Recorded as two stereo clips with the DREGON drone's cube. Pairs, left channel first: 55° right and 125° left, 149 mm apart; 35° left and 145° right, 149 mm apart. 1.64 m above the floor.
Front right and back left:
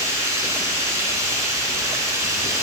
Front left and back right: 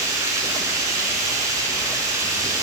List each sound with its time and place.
0.0 s running water: 170° left, 1.8 m